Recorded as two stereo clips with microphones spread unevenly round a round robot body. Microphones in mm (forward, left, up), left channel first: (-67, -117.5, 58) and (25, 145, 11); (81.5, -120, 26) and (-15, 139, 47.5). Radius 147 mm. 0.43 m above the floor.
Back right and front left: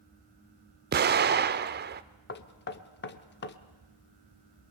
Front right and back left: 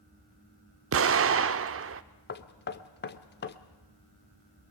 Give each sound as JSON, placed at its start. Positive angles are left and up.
{"t": 0.9, "sound": "an explosion", "azimuth_deg": 90, "distance_m": 1.0}
{"t": 2.3, "sound": "knocking", "azimuth_deg": -60, "distance_m": 1.2}